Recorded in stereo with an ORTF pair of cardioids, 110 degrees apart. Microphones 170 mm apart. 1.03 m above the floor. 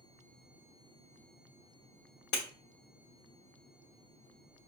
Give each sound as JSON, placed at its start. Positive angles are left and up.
{"t": 2.3, "sound": "breaking glass", "azimuth_deg": 70, "distance_m": 1.8}